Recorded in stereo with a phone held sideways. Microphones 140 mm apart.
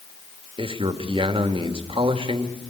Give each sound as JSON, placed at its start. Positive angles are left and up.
{"t": 0.6, "sound": "a man speaking", "side_deg": -40, "distance_m": 2.0}